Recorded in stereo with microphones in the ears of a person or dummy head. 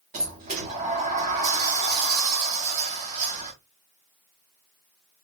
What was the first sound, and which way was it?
A sliding door, 35° right (ahead or behind).